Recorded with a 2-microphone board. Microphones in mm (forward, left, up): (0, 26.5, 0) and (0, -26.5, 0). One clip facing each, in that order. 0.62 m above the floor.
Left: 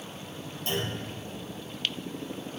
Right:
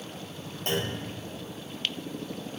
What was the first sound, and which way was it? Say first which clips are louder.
A clunk: right 2 dB; 60° right (ahead or behind).